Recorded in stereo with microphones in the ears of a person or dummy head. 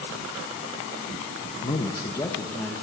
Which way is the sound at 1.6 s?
30° left (ahead or behind).